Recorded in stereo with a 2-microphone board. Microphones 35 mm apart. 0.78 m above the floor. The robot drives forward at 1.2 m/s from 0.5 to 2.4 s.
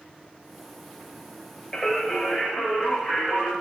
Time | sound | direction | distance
1.7 | singing | 25° left (ahead or behind) | 0.6 m